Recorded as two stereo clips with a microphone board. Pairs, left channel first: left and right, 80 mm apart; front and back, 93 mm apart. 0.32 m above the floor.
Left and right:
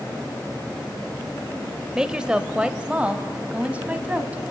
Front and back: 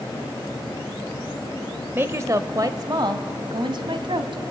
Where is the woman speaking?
160° right, 0.9 m.